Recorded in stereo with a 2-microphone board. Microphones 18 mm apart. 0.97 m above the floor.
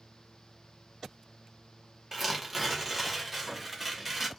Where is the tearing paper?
15° right (ahead or behind), 0.7 m.